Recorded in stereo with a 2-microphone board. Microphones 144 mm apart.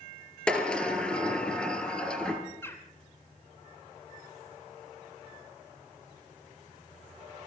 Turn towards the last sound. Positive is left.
turn(degrees=15)  # may be behind; listen again after turning